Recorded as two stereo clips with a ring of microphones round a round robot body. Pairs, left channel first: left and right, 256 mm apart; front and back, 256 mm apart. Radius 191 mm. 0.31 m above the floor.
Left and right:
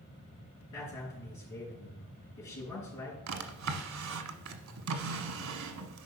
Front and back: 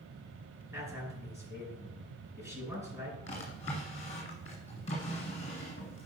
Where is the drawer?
70° right, 1.1 m.